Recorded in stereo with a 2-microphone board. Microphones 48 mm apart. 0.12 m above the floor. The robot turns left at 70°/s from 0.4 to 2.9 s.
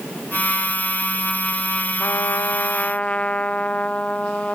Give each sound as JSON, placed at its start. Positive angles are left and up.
{"t": 2.0, "sound": "a trumpet", "azimuth_deg": 90}